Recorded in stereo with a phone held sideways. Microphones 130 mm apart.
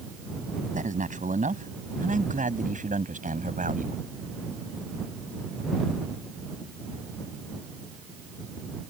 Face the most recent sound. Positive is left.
turn(degrees=-90)